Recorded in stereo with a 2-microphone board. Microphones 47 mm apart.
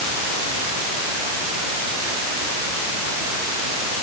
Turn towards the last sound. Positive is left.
No sound to turn to.